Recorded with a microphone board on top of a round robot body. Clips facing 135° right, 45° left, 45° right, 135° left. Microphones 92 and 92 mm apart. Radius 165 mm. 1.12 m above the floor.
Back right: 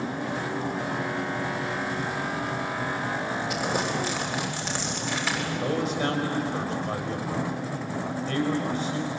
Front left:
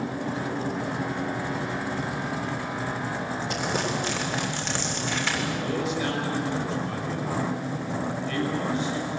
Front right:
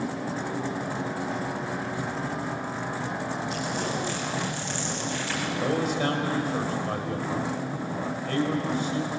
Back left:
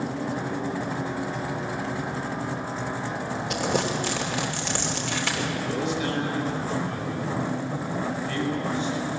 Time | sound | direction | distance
3.5 | crumpling | 140° left | 3.5 m
5.6 | a man speaking | 85° right | 5.5 m